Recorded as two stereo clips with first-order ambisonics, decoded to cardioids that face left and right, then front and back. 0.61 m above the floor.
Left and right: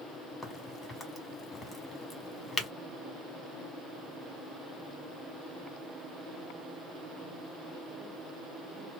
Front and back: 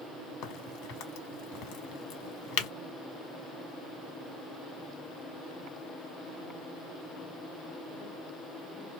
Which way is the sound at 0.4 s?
15° left.